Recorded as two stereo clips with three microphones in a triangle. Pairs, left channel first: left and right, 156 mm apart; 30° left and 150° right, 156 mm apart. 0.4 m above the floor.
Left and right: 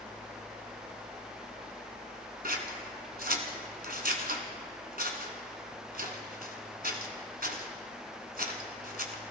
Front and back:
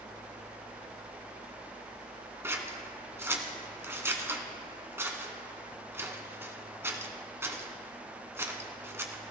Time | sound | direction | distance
2.4 | scissors | 75° right | 1.4 m